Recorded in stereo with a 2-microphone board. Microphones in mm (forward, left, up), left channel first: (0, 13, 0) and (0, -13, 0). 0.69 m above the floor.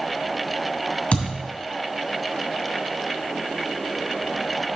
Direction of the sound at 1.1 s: 45° left (ahead or behind).